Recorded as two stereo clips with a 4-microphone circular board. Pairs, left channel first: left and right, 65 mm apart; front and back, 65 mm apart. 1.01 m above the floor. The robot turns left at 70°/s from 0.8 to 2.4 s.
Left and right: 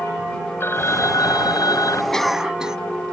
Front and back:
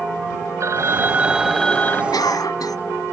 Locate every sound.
0.6 s a phone ringing: 140° left; by 2.0 s 55° left
2.1 s a cough: 10° left; by 2.8 s 10° right